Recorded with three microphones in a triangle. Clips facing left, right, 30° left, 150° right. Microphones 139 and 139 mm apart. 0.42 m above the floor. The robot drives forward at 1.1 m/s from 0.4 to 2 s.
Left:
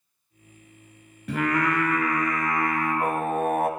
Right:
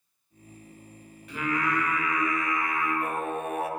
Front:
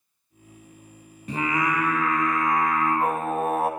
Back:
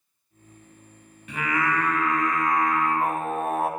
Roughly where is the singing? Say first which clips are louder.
Left 5 dB, front 1 dB; left.